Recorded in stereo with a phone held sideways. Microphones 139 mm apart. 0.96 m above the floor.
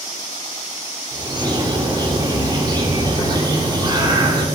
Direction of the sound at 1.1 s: 30° right (ahead or behind).